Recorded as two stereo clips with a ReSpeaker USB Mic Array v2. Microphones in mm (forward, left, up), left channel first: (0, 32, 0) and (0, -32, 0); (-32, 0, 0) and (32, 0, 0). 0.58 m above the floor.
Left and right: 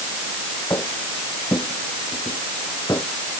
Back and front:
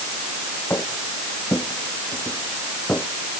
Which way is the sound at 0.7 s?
130° left.